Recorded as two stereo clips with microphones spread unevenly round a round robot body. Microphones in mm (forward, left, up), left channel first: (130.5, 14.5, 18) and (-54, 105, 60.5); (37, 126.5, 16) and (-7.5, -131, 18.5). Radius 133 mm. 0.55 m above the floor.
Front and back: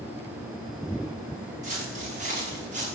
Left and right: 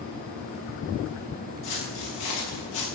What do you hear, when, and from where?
1.6 s footsteps: 100° left, 7.5 m